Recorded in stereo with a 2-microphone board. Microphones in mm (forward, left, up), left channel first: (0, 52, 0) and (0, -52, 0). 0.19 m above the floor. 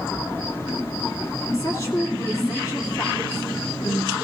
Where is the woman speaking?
35° left (ahead or behind), 2 m.